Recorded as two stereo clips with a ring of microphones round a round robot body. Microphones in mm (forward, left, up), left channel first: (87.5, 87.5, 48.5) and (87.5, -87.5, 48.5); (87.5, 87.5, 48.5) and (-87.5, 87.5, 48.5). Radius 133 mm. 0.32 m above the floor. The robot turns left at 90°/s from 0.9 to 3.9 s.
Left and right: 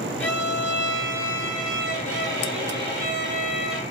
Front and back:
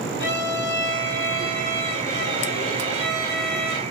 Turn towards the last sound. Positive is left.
turn(degrees=100)